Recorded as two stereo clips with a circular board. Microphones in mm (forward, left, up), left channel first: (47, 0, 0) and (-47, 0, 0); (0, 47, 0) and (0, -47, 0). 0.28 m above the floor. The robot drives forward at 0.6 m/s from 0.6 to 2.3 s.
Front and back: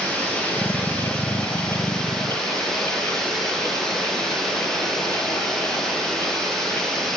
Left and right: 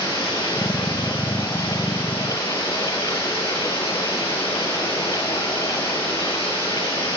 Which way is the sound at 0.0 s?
70° left.